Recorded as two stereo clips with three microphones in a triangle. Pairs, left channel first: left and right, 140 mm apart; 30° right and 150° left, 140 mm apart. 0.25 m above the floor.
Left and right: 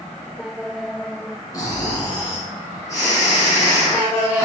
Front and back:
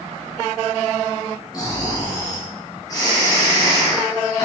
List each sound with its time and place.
1.5 s snoring: 30° left, 1.9 m